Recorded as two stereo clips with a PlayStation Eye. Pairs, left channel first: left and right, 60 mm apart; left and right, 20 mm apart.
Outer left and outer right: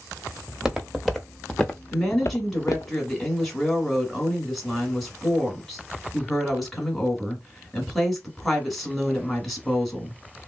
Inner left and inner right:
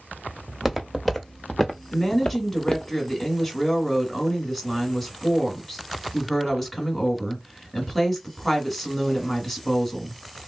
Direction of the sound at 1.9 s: 5° left (ahead or behind).